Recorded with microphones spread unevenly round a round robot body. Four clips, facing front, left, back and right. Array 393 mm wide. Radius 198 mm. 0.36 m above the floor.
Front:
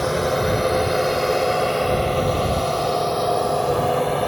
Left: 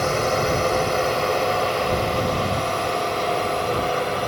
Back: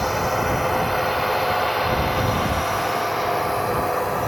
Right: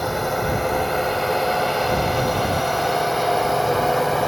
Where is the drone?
5° left; by 4.3 s 35° right.